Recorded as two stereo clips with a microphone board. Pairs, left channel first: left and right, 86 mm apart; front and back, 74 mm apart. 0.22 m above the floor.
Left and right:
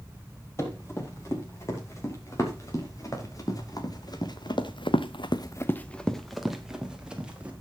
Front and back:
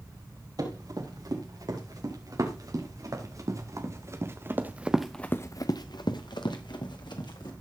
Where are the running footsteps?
145° left, 7.5 m; by 7.5 s 15° right, 3.5 m.